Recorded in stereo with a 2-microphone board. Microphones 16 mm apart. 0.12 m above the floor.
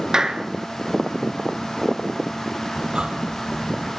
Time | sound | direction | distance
0.1 | a clap | 40° right (ahead or behind) | 1.3 m
2.8 | breathing | 65° right (ahead or behind) | 1.8 m